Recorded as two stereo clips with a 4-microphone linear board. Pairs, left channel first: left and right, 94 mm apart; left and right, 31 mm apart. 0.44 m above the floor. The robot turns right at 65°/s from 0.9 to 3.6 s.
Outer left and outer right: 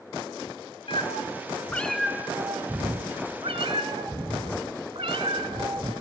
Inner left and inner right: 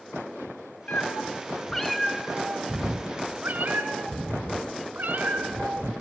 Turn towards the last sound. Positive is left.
turn(degrees=-75)